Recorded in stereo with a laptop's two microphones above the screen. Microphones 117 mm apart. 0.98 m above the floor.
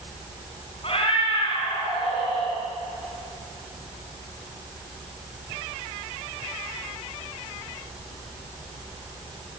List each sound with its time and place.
0.8 s a cat meowing: 50° left (ahead or behind), 4.5 m